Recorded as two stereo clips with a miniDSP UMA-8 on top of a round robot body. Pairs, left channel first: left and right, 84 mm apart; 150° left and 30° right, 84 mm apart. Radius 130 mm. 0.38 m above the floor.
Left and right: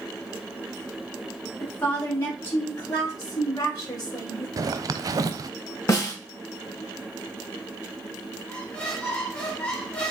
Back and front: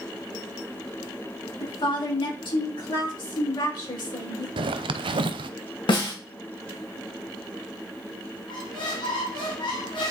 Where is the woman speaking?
150° left, 4.5 m; by 4.5 s 130° left, 6.5 m.